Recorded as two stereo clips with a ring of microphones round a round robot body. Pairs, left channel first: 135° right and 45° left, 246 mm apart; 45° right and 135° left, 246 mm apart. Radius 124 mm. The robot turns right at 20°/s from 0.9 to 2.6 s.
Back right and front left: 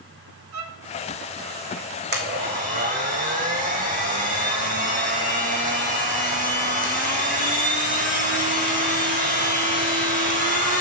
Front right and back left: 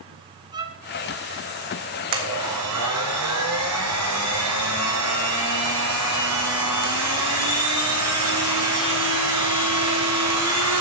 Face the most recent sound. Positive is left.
turn(degrees=105)